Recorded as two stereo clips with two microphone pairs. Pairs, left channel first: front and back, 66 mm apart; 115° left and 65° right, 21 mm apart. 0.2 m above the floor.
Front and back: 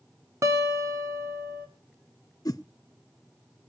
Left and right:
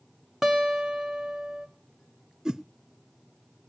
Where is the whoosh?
Straight ahead, 0.6 m.